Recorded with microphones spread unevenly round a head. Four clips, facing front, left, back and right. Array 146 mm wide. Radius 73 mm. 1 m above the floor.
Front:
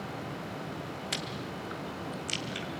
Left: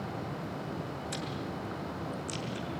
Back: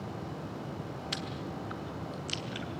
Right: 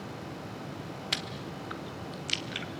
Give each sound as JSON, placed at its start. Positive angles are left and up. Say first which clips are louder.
{"t": 1.1, "sound": "chewing", "louder": "left 2 dB, front 1 dB", "azimuth_deg": -70, "distance_m": 2.5}